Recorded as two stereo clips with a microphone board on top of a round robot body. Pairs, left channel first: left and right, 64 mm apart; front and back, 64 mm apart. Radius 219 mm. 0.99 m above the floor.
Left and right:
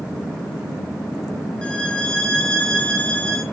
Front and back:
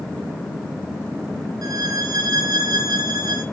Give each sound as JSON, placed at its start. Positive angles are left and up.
{"t": 1.6, "sound": "a violin", "azimuth_deg": 165, "distance_m": 0.5}